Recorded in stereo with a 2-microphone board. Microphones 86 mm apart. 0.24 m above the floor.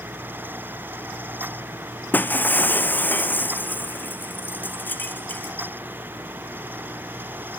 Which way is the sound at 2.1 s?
20° left (ahead or behind).